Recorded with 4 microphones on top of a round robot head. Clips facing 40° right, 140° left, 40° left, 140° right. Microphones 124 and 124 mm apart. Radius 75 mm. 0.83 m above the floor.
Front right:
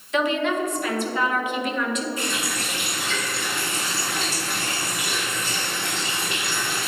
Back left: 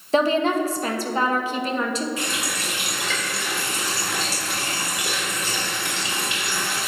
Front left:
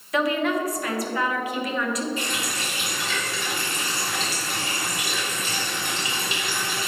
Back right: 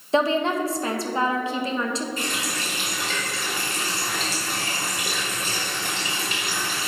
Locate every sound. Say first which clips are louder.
0.1 s a woman speaking: back left 3 dB, back right 2 dB; 175° left, 0.9 m
2.2 s a running tap: even, even; 170° left, 2.5 m